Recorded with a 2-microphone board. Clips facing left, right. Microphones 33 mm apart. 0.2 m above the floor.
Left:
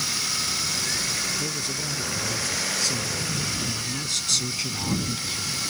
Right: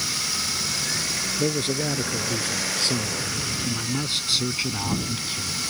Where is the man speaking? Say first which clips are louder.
Right 5 dB; 50° right (ahead or behind); by 5.6 s 10° right (ahead or behind).